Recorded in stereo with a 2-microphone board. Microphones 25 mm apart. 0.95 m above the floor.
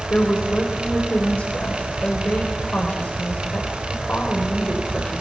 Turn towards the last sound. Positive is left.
turn(degrees=80)